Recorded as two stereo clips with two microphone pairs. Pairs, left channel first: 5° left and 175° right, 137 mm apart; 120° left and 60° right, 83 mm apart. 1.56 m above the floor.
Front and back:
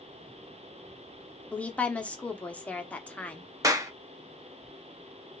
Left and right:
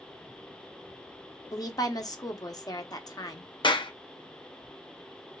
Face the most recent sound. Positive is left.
turn(degrees=120)